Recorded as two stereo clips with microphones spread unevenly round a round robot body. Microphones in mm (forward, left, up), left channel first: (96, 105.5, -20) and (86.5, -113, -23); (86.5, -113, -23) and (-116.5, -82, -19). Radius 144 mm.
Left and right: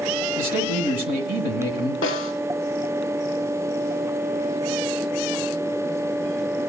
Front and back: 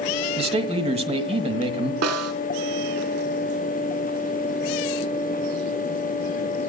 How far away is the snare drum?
About 0.9 m.